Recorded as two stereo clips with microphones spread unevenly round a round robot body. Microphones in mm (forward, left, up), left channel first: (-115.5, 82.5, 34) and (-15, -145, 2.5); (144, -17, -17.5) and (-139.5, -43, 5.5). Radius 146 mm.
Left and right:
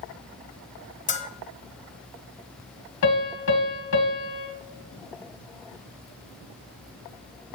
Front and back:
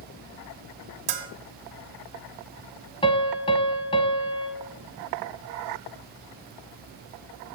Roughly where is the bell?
Behind.